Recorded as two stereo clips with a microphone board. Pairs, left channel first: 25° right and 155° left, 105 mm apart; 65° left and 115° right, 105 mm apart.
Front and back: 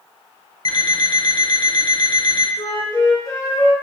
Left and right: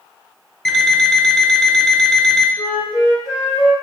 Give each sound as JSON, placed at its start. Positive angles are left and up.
{"t": 0.7, "sound": "an alarm clock", "azimuth_deg": -20, "distance_m": 0.6}
{"t": 2.6, "sound": "a flute", "azimuth_deg": 20, "distance_m": 1.0}